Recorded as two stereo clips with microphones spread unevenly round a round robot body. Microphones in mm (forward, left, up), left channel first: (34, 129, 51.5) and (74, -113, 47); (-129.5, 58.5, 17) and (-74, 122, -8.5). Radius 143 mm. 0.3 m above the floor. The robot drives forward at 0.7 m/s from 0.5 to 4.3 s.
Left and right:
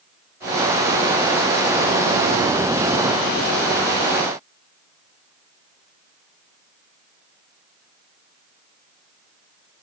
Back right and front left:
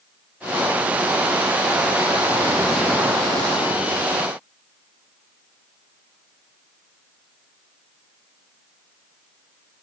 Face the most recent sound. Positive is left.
No sound to turn to.